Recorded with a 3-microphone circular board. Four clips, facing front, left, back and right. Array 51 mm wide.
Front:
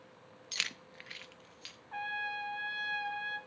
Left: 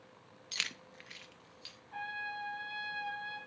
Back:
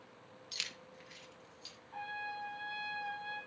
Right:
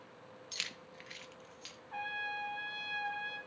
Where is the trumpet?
20° right, 2.5 m.